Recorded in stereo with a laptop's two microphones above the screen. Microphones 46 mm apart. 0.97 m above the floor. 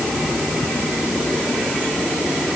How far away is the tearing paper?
I don't hear tearing paper.